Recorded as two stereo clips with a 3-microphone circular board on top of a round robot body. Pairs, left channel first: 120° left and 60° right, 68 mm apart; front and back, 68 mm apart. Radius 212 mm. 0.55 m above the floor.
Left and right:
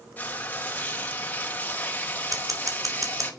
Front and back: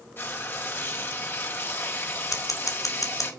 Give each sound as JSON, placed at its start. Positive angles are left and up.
{"t": 0.2, "sound": "frying", "azimuth_deg": 55, "distance_m": 3.5}
{"t": 2.3, "sound": "scissors", "azimuth_deg": -30, "distance_m": 2.5}